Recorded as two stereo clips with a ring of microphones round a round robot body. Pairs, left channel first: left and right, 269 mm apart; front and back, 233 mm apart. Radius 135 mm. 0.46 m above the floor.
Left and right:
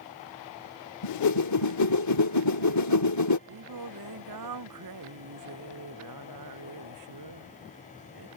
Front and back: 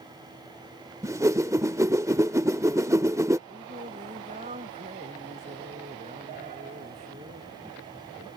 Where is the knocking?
No knocking in this recording.